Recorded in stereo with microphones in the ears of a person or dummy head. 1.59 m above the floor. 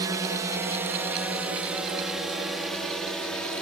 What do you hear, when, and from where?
0.0 s a drone: 20° right (ahead or behind); by 3.6 s 5° left (ahead or behind)